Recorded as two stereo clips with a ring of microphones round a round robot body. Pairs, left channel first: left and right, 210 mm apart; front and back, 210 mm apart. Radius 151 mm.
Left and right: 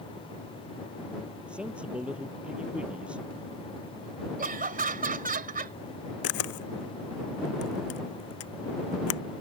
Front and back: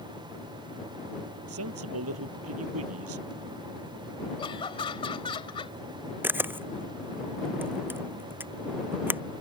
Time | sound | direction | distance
1.5 | a man speaking | 175° right | ?
4.4 | laughter | 60° right | ?
6.2 | a camera shutter | 100° left | ?